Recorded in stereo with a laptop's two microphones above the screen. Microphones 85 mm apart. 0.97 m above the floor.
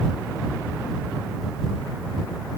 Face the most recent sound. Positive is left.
No sound to turn to.